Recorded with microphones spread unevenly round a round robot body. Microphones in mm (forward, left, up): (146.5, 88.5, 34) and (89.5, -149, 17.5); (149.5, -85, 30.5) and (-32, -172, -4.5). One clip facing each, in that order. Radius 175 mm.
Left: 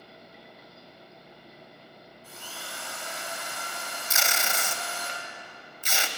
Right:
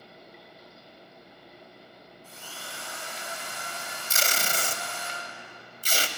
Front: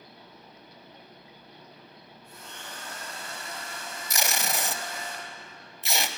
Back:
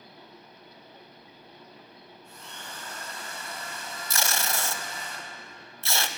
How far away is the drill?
About 4.5 m.